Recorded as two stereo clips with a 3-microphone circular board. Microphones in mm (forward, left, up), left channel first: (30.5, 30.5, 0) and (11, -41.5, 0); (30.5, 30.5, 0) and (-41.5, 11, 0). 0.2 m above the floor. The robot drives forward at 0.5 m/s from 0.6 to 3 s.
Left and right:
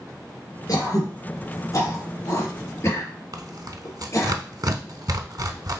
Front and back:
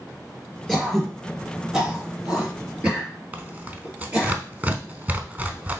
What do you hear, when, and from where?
0.7 s throat clearing: 100° left, 2.5 m; by 4.3 s 125° left, 3 m
3.3 s tearing paper: 105° right, 0.6 m